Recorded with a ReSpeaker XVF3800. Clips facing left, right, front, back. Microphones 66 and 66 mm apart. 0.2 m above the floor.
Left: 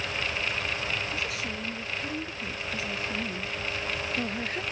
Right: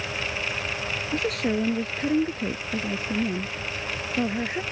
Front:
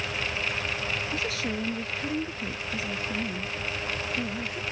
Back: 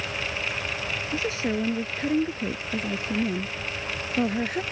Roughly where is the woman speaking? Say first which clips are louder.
Right 8 dB, back 4 dB; behind right.